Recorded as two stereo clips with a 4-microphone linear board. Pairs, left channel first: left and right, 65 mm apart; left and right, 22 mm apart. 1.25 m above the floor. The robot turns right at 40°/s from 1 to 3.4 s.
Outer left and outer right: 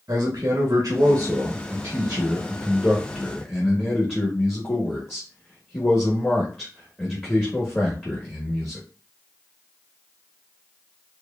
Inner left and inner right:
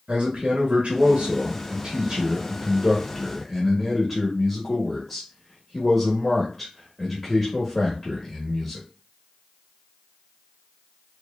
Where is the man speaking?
70° right, 1.3 m; by 8.8 s 30° left, 1.3 m.